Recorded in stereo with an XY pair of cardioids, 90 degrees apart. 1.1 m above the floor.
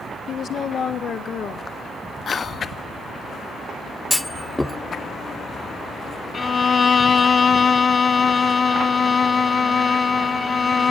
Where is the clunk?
15° left, 0.7 m.